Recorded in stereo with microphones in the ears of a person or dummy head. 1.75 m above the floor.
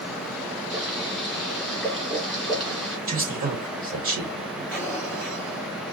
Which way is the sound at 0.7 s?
Centre (ahead or behind).